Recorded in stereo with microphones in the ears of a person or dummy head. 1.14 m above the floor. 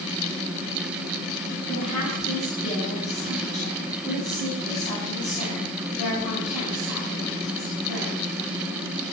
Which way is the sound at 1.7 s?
45° left (ahead or behind).